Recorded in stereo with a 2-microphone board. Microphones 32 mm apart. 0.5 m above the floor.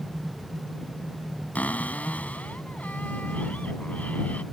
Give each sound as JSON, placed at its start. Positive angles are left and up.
{"t": 1.6, "sound": "a cupboard door", "side_deg": 50}